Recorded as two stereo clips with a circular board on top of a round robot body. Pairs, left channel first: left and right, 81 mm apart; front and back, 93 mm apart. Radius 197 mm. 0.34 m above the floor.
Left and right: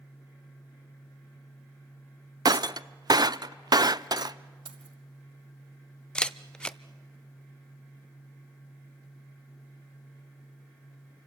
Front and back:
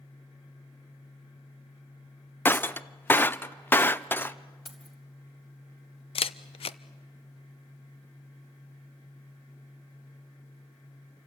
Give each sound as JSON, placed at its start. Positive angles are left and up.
{"t": 2.5, "sound": "breaking glass", "azimuth_deg": -65, "distance_m": 0.6}
{"t": 4.7, "sound": "keys jangling", "azimuth_deg": -90, "distance_m": 2.0}
{"t": 6.2, "sound": "a camera shutter", "azimuth_deg": 10, "distance_m": 0.5}